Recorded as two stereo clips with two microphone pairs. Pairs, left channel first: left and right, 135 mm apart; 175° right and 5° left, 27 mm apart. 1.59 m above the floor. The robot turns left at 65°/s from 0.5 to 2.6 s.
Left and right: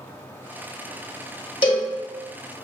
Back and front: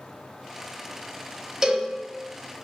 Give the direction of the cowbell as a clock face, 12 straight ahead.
10 o'clock.